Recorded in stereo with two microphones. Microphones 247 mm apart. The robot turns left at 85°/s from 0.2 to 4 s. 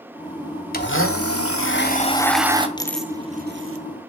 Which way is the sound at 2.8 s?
20° left (ahead or behind).